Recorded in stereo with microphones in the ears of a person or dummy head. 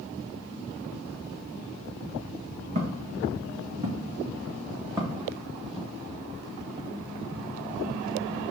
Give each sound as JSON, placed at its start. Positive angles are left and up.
{"t": 2.8, "sound": "footsteps", "side_deg": -35, "distance_m": 4.0}